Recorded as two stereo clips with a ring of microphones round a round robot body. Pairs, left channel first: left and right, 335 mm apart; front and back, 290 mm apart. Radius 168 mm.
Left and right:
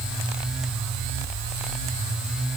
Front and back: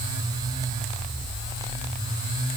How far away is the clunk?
I don't hear a clunk.